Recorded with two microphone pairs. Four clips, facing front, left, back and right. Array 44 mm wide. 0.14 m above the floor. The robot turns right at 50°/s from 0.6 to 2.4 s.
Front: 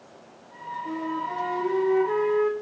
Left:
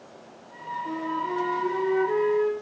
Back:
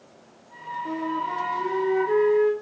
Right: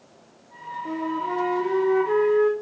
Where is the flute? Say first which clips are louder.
Right 3 dB, back 2 dB; 135° right, 3.5 m; by 2.5 s 55° right, 3.5 m.